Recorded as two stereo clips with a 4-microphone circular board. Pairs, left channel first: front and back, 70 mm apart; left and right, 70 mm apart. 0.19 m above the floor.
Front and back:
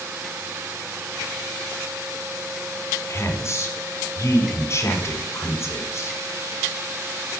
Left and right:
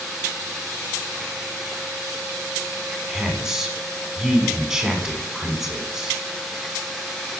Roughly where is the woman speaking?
Ahead.